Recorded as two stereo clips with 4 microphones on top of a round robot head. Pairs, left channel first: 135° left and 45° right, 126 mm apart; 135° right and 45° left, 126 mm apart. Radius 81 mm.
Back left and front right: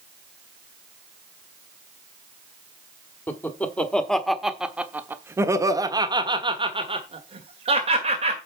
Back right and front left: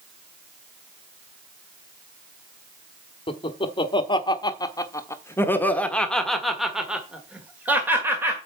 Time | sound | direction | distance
3.3 | laughter | 160° right | 1.6 m